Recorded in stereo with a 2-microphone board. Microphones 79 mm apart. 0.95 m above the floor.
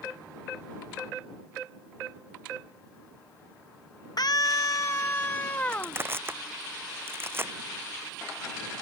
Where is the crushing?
30° right (ahead or behind).